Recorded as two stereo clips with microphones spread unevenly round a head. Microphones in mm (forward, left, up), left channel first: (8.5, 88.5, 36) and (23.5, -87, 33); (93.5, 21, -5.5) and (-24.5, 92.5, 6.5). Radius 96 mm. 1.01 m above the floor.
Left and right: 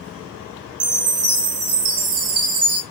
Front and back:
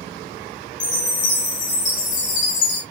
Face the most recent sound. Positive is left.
turn(degrees=-85)